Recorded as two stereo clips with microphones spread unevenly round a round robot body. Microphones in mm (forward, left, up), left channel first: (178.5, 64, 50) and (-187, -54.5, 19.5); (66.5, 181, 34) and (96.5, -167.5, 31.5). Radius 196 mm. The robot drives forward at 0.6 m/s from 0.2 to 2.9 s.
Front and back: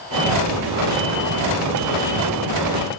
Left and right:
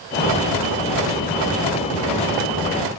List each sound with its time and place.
Only background noise.